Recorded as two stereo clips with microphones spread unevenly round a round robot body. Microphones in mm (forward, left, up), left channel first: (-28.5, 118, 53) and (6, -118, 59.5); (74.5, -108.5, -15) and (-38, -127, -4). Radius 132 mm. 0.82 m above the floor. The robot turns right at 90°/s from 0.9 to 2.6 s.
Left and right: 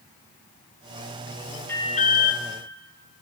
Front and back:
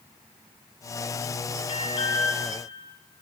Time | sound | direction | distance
1.7 | an alarm | 20° left | 2.5 m